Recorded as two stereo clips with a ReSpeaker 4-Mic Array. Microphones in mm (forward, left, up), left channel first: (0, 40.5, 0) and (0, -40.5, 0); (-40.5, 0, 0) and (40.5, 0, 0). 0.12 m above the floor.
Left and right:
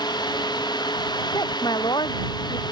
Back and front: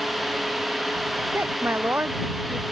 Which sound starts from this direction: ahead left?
A woman speaking, at 1.3 s.